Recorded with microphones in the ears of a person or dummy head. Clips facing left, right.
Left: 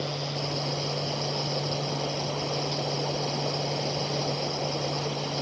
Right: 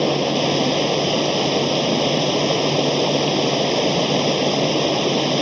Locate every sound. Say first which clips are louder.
0.0 s running water: right 14 dB; 85° right